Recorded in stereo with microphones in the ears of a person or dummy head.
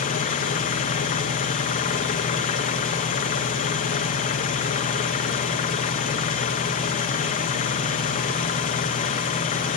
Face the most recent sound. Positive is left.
turn(degrees=40)  # may be behind; listen again after turning